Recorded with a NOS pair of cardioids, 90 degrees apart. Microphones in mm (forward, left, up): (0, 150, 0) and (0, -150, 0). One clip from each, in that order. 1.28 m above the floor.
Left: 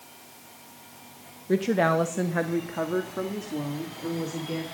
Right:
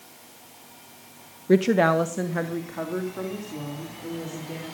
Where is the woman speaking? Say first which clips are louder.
Right 4 dB; 35° right, 1.0 m; by 4.6 s 35° left, 4.5 m.